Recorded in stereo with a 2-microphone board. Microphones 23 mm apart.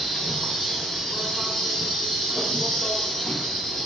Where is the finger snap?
No finger snap in this recording.